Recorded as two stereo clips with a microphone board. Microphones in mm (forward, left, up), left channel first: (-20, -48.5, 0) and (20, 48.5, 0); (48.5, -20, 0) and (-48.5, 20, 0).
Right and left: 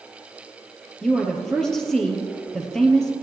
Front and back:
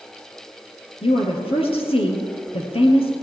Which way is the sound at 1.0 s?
30° right.